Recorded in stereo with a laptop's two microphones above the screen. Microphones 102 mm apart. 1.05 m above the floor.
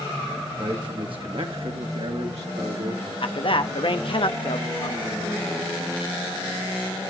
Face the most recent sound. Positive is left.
turn(degrees=60)  # may be behind; listen again after turning